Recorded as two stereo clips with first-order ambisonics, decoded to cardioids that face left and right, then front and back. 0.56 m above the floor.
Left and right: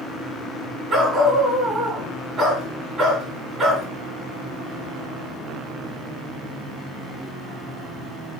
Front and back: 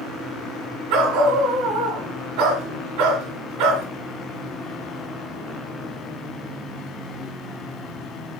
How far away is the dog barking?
About 2 m.